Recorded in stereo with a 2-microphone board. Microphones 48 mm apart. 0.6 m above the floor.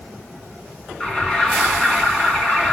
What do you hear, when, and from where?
1.0 s an alarm: 15° left (ahead or behind), 8 m